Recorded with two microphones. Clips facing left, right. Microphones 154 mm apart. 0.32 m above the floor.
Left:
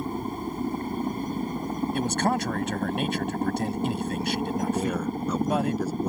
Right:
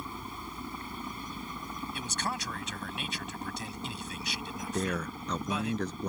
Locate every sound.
0.0 s a helicopter: 50° left (ahead or behind)
1.9 s a man speaking: 60° left (ahead or behind)
4.7 s a man speaking: 10° left (ahead or behind)